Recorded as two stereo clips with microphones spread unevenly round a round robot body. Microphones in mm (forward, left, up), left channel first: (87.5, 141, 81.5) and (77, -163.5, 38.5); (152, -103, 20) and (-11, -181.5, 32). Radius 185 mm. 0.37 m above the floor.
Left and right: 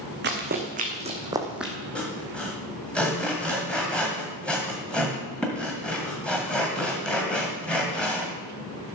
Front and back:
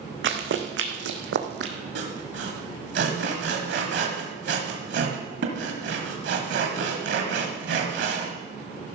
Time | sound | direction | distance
0.2 | running footsteps | 155° right | 1.8 m
1.9 | sawing | straight behind | 1.6 m